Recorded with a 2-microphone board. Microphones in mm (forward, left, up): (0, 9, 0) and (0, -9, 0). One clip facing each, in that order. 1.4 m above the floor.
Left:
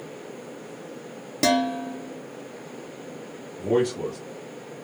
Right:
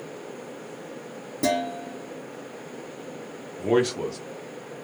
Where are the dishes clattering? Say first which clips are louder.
Left 4 dB; 50° left (ahead or behind), 0.8 m.